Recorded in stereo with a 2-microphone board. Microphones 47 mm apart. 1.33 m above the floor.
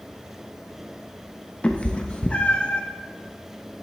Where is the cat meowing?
30° left (ahead or behind), 0.6 m.